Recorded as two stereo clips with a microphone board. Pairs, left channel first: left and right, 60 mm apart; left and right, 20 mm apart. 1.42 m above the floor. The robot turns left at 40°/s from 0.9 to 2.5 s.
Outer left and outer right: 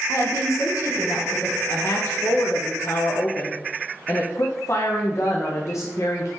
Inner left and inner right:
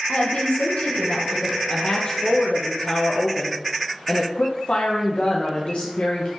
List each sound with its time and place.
0.1 s a woman speaking: 60° left (ahead or behind), 1.1 m; by 1.6 s 85° left, 1.1 m
1.7 s a woman speaking: 130° left, 0.5 m; by 6.3 s 95° left, 0.5 m